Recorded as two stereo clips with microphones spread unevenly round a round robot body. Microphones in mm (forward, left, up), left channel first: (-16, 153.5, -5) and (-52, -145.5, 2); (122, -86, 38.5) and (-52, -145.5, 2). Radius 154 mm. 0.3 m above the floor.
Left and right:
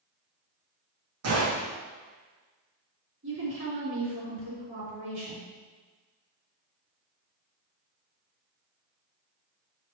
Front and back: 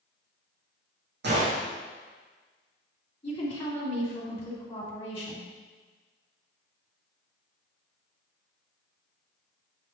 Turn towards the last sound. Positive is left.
turn(degrees=-45)